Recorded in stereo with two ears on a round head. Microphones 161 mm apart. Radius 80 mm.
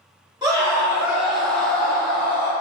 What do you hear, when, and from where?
0.4 s a scream: 20° right (ahead or behind), 1.9 m; by 2.5 s 35° left (ahead or behind), 1.4 m